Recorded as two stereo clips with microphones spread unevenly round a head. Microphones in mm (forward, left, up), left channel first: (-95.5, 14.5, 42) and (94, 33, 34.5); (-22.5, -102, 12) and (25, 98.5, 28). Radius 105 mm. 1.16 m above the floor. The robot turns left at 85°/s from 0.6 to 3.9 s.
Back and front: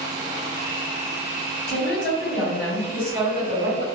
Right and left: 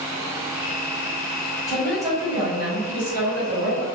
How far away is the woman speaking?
About 1.7 m.